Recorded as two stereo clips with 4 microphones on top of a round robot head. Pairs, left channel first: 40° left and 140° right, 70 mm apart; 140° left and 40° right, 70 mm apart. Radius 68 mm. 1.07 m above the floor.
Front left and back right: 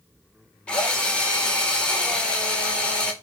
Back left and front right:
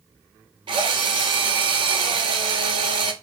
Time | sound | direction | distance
0.7 | a drill | 35° right | 1.9 m